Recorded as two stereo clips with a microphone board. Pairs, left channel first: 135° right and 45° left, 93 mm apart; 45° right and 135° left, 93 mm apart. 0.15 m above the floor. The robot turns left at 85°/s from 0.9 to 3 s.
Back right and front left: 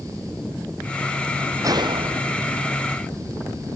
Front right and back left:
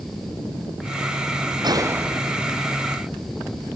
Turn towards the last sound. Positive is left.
turn(degrees=-20)